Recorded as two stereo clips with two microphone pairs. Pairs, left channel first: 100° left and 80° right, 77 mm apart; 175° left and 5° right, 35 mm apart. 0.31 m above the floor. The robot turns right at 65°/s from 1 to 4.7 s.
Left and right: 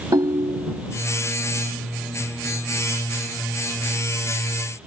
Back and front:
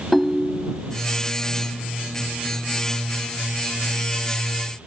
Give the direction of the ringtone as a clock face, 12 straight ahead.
3 o'clock.